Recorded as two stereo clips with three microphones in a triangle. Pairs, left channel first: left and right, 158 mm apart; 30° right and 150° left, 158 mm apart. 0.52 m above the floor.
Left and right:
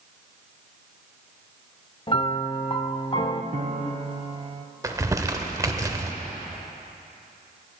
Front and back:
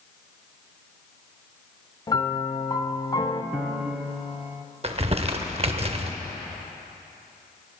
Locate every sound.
2.1 s a piano: 30° left, 0.5 m
3.5 s a piano: 125° right, 0.7 m
4.8 s crumpling: 160° right, 0.7 m